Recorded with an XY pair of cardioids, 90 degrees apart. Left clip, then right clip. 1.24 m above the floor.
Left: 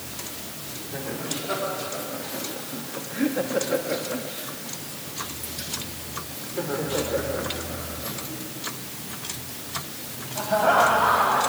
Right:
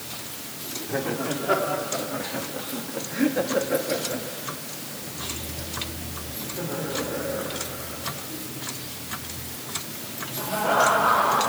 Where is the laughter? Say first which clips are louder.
Right 5 dB; 60° right, 3 m; by 11.4 s 70° left, 7.5 m.